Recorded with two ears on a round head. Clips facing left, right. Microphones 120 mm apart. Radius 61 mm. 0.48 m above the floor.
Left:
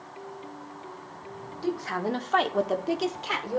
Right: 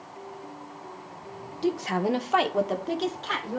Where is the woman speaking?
25° right (ahead or behind), 0.8 m; by 3.6 s 20° left (ahead or behind), 1.2 m.